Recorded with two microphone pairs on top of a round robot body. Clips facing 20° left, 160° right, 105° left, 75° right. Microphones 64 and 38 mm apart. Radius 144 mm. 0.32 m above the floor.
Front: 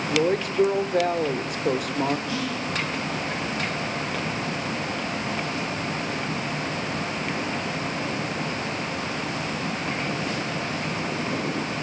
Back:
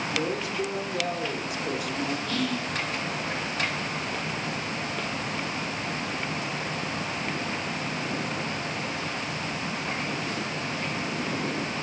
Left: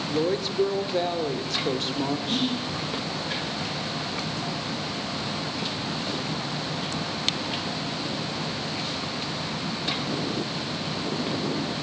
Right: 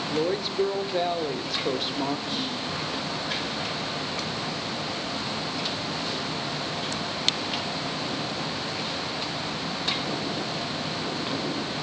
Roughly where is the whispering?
Left.